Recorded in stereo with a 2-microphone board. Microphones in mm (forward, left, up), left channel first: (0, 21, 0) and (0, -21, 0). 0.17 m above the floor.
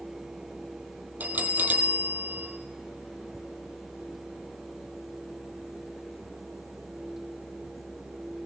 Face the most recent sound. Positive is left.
turn(degrees=-45)  # may be behind; listen again after turning